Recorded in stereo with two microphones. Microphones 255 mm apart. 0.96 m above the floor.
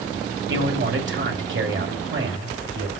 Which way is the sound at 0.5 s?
50° right (ahead or behind).